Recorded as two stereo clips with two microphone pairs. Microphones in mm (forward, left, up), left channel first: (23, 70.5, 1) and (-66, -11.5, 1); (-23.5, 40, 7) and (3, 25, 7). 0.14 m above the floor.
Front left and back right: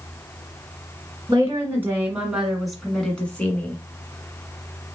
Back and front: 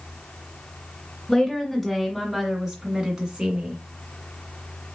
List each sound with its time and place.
1.3 s a woman speaking: 135° right, 1.6 m; by 3.8 s 20° right, 1.8 m